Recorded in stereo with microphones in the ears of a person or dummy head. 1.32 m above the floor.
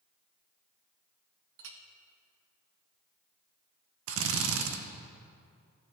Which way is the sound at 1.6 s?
65° right (ahead or behind).